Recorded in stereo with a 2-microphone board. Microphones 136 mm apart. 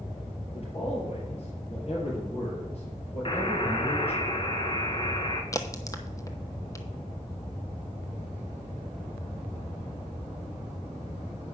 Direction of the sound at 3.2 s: 40° left (ahead or behind).